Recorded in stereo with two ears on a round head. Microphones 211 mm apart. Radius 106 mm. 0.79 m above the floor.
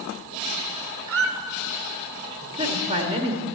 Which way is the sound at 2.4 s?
25° right (ahead or behind).